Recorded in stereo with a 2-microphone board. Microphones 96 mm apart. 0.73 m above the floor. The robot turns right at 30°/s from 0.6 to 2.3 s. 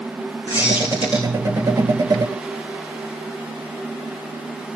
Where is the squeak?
75° left (ahead or behind), 3 m.